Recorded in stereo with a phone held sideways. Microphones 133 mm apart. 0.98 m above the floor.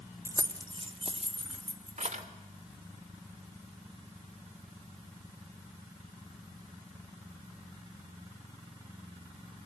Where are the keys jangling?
20° right (ahead or behind), 0.9 m; by 2.2 s 65° right (ahead or behind), 2.0 m.